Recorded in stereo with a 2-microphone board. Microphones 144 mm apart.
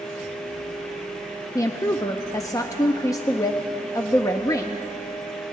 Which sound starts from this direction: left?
A woman speaking, at 1.6 s.